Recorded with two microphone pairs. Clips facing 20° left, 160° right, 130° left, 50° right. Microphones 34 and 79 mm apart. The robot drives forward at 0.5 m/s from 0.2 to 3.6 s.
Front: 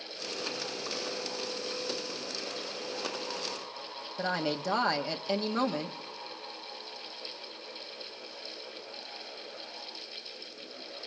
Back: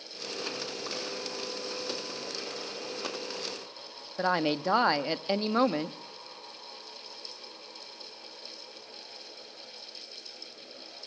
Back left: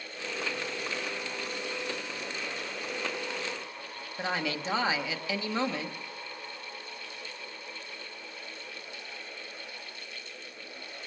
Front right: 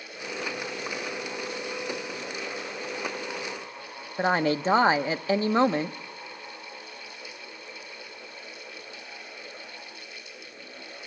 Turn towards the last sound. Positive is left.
turn(degrees=-95)